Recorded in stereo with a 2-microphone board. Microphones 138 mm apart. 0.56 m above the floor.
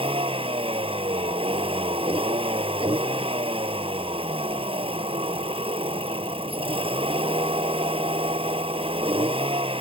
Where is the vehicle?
45° right (ahead or behind).